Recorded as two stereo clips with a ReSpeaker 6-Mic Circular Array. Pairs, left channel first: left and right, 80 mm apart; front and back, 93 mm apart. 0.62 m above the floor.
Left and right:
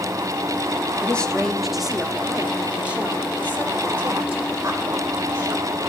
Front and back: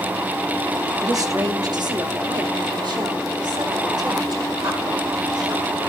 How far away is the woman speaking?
About 1.0 m.